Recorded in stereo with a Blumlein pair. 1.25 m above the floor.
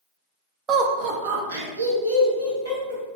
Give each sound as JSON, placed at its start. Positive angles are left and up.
{"t": 0.7, "sound": "laughter", "azimuth_deg": -20, "distance_m": 0.6}